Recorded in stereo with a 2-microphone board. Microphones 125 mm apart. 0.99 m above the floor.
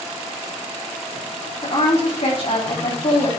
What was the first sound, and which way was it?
A woman speaking, 65° left (ahead or behind).